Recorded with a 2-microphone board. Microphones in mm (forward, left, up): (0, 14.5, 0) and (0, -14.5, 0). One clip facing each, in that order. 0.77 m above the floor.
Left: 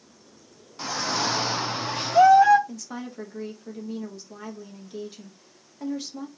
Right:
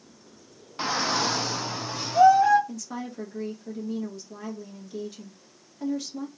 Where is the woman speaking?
10° left (ahead or behind), 1.2 m.